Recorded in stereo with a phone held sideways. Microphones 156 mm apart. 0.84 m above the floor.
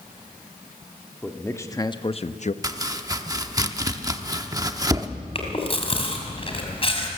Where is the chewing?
40° left (ahead or behind), 3.5 m.